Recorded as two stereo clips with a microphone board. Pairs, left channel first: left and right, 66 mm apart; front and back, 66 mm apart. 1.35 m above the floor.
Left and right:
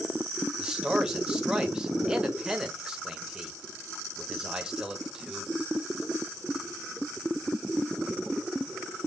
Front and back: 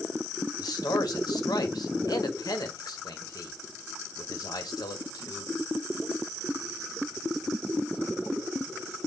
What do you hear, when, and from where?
0.6 s a man speaking: 10° right, 1.6 m